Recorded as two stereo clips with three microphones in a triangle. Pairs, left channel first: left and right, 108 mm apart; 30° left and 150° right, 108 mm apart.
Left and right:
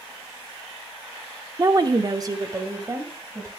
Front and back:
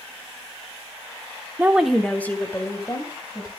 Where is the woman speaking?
95° right, 1.0 m; by 3.5 s 25° right, 3.5 m.